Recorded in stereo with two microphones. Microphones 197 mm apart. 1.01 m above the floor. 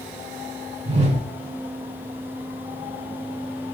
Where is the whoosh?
35° right (ahead or behind), 0.9 m.